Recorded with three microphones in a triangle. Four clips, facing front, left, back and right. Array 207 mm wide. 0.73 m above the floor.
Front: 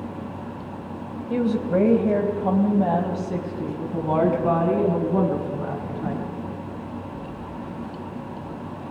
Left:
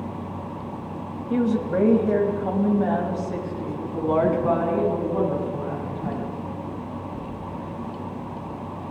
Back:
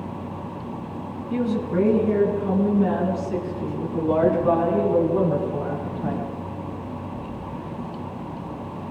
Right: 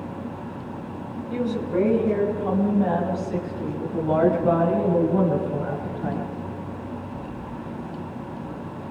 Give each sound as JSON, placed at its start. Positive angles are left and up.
{"t": 1.3, "sound": "a woman speaking", "azimuth_deg": 25, "distance_m": 3.5}